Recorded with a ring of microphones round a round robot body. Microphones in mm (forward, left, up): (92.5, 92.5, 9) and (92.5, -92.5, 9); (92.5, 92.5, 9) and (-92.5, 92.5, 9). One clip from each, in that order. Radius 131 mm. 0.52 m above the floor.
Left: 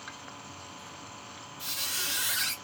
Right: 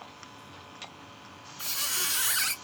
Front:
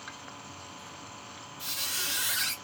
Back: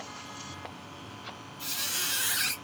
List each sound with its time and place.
1.6 s a squeak: 95° right, 1.6 m